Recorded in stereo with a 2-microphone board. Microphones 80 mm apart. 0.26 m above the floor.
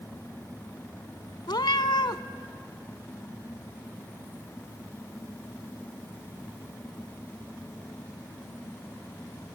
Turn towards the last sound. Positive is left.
turn(degrees=75)  # may be behind; listen again after turning